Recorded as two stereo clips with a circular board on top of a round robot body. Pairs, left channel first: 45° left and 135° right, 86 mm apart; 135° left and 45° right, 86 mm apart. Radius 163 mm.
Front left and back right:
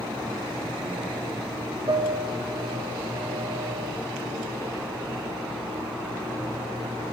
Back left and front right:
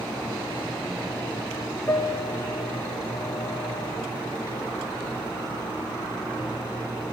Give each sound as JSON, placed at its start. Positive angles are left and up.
{"t": 1.9, "sound": "a piano", "azimuth_deg": -160, "distance_m": 1.3}